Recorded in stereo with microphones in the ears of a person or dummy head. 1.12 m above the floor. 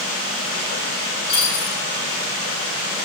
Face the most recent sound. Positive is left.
turn(degrees=35)  # may be behind; listen again after turning